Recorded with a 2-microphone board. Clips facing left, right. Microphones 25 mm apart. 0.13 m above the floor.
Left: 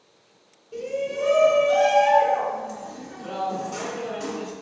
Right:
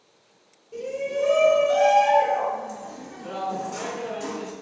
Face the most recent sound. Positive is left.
turn(degrees=35)  # may be behind; listen again after turning